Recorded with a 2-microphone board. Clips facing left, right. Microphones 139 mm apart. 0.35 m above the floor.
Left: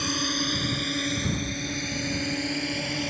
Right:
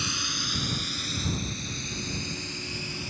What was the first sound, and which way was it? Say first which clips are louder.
A drone: left 8 dB; 55° left (ahead or behind).